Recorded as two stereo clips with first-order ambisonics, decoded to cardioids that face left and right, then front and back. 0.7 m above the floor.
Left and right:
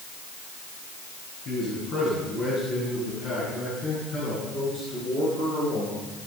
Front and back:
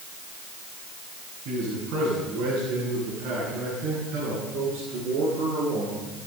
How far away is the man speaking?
About 8 m.